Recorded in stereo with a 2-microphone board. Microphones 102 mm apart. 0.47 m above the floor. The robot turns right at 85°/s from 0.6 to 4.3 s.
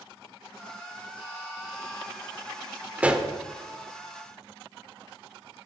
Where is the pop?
15° right (ahead or behind), 1.3 m; by 3.3 s centre (ahead or behind), 1.3 m.